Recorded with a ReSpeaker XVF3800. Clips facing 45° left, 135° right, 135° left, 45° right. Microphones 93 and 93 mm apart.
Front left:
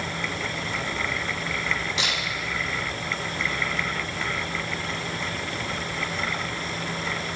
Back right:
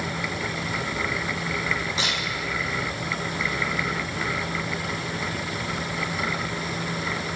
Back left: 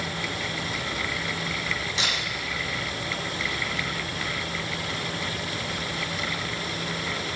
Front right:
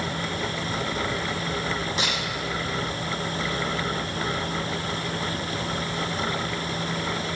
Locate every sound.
2.0 s a camera shutter: 85° right, 8.5 m